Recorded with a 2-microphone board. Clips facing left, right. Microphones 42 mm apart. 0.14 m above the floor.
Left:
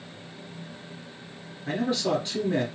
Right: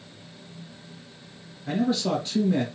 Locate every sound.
1.7 s a man speaking: 30° left (ahead or behind), 3 m